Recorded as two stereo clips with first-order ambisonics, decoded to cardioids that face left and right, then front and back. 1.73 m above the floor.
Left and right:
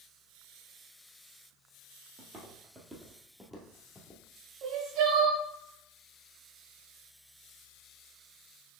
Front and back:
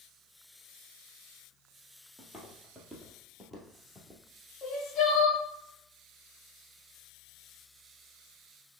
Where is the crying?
55° right, 1.6 m.